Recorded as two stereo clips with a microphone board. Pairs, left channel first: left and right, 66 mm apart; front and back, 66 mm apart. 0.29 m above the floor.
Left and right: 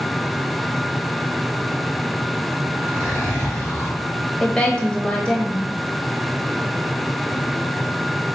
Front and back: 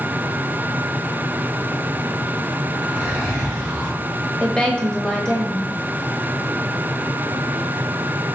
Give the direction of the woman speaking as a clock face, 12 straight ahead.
10 o'clock.